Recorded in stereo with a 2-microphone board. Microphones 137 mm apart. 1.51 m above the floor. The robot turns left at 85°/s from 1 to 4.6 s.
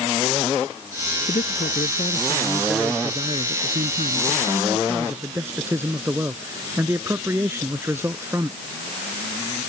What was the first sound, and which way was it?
A man speaking, 120° left.